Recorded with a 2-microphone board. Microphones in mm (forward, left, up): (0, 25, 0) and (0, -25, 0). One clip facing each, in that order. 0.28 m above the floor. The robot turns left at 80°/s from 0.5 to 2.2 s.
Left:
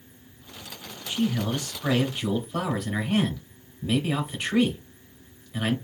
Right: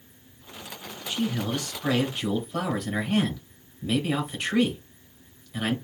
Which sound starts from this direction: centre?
A man speaking, at 1.1 s.